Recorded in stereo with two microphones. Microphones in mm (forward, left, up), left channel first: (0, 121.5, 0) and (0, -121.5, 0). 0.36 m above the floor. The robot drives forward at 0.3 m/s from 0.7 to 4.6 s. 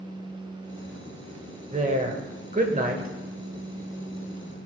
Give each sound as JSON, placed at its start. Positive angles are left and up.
{"t": 1.7, "sound": "a woman speaking", "side_deg": -30, "distance_m": 1.3}